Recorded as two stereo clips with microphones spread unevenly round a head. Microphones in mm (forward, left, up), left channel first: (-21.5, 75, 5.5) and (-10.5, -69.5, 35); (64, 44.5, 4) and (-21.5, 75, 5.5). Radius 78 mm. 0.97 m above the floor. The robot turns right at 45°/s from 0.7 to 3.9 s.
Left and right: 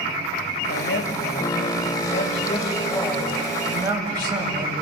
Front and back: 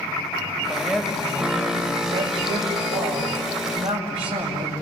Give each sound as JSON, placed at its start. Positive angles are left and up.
{"t": 0.7, "sound": "a man speaking", "azimuth_deg": 70, "distance_m": 6.0}